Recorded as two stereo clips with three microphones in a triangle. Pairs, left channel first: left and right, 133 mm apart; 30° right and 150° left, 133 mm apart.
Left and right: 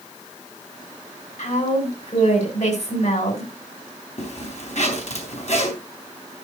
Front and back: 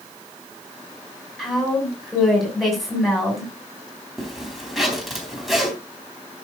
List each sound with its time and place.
1.4 s a woman speaking: 60° left, 6.5 m
4.2 s a zipper: 60° left, 3.5 m